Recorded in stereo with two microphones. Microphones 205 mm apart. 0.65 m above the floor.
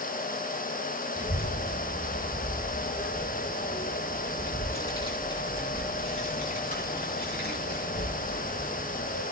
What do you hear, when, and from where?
1.1 s a child speaking: 15° right (ahead or behind), 5.5 m; by 9.2 s 70° left (ahead or behind), 4.5 m